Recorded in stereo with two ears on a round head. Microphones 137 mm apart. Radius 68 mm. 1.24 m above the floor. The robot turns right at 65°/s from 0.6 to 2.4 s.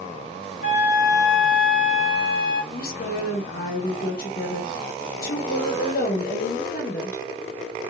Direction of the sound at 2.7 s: 55° left (ahead or behind).